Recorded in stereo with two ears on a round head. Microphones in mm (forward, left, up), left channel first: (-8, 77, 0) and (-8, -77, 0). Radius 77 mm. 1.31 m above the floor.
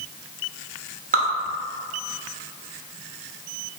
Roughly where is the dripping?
Right.